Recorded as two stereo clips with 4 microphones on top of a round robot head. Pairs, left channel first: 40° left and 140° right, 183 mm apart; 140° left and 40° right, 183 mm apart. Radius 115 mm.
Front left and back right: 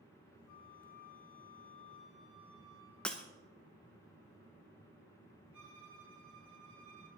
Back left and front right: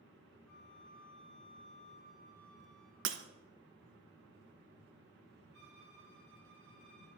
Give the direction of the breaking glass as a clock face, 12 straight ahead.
1 o'clock.